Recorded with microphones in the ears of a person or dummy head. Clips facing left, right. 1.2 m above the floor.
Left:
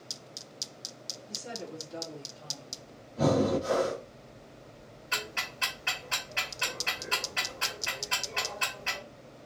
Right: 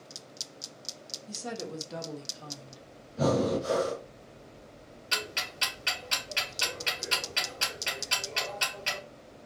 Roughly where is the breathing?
Centre.